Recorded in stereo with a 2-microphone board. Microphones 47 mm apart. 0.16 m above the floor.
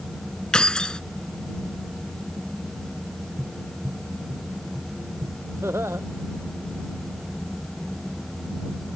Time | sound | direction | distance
0.5 | keys jangling | 20° left (ahead or behind) | ?
3.4 | tapping | 85° right | ?
5.6 | laughter | 70° right (ahead or behind) | ?